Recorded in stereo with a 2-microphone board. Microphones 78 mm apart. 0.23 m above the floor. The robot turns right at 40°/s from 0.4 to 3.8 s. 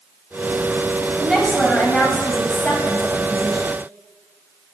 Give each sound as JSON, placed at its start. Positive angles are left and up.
{"t": 1.2, "sound": "a woman speaking", "side_deg": 0, "distance_m": 1.0}